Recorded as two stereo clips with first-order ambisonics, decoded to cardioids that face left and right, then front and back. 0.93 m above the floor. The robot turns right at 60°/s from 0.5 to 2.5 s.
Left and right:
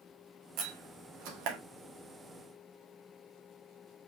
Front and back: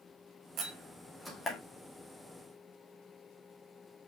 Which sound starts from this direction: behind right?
A door slam, at 0.6 s.